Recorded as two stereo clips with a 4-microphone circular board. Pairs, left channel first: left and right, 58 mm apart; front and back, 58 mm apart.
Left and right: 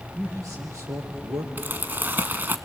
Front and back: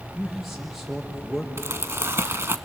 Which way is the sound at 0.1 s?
90° right.